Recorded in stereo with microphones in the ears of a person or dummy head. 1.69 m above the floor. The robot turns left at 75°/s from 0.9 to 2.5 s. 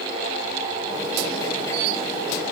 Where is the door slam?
I don't hear a door slam.